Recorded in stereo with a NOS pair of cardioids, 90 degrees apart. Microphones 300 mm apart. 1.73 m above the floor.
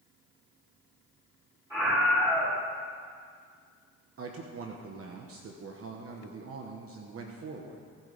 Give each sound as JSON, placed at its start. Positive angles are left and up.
{"t": 1.7, "sound": "a scream", "azimuth_deg": -10, "distance_m": 6.0}
{"t": 4.2, "sound": "a man speaking", "azimuth_deg": -50, "distance_m": 1.4}